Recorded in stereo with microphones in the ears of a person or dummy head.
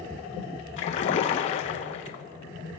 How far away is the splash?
About 0.9 m.